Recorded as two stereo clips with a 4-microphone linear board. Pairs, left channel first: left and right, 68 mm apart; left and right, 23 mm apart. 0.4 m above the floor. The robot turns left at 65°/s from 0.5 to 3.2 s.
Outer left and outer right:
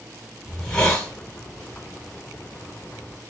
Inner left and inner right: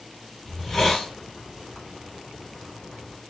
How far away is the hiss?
About 1.2 m.